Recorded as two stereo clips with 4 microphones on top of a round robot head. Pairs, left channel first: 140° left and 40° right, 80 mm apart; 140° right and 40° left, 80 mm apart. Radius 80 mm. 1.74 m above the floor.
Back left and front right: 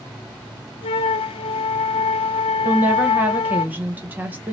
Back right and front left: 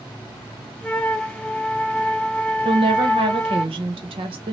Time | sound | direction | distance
0.8 | a flute | 145° left | 0.5 m
2.6 | a woman speaking | 30° left | 1.2 m